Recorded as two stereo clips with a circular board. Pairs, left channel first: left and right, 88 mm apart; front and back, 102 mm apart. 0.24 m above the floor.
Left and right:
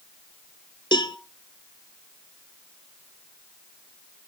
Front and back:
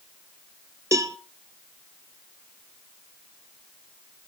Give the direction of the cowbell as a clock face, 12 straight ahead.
8 o'clock.